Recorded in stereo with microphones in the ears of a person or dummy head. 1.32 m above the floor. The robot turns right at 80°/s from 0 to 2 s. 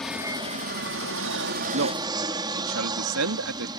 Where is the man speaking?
55° right (ahead or behind); by 3.7 s 75° right (ahead or behind).